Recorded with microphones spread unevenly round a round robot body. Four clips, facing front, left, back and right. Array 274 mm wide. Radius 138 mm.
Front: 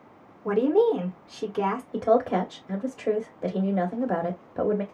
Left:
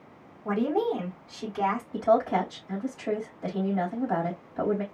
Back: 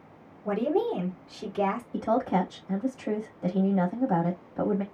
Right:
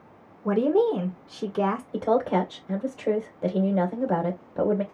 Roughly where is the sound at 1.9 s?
Ahead right.